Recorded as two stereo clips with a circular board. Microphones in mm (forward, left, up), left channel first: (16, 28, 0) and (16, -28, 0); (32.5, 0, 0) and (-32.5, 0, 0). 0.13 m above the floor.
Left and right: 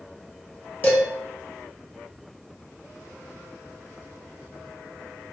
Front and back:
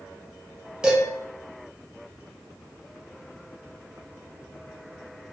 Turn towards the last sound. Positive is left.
turn(degrees=115)